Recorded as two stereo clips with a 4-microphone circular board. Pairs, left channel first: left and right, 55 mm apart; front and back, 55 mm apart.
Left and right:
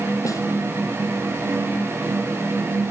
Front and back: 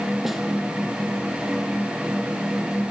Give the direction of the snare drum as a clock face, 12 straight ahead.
9 o'clock.